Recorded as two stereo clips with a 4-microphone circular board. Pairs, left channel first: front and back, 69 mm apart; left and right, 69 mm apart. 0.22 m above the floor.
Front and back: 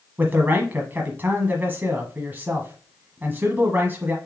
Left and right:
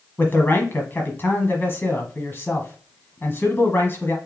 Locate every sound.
0.2 s a man speaking: 130° left, 1.3 m